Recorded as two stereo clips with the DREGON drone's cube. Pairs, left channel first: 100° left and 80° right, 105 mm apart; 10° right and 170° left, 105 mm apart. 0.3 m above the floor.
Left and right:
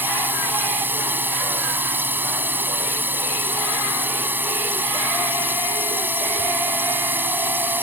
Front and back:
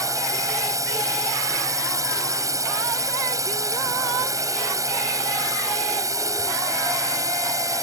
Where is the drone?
145° right.